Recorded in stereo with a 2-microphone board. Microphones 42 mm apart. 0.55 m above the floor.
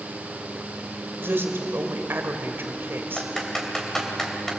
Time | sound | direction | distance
1.2 | a woman speaking | 65° right (ahead or behind) | 2.5 m
3.2 | typing on a keyboard | 10° left (ahead or behind) | 3 m